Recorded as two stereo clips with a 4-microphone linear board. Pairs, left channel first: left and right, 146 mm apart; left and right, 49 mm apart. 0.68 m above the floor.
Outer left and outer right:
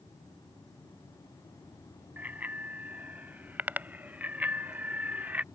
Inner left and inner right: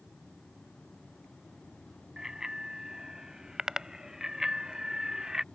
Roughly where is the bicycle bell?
Centre.